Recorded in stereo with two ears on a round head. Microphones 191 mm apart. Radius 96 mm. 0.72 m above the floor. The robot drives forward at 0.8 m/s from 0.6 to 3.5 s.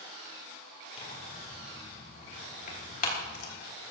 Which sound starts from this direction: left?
Tearing paper, at 1.0 s.